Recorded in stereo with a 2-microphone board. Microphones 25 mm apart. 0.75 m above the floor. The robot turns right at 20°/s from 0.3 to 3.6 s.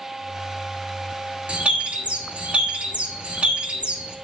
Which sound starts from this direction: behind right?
A bird, at 1.5 s.